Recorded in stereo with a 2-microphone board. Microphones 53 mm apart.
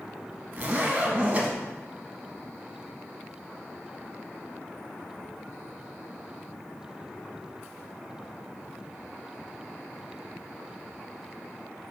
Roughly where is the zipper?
Right.